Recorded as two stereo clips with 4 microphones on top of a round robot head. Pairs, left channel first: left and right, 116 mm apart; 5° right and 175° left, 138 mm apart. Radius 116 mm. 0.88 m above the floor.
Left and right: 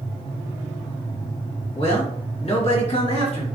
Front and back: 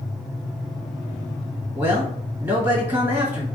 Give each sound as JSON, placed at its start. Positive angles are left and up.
{"t": 1.8, "sound": "a man speaking", "azimuth_deg": 100, "distance_m": 1.7}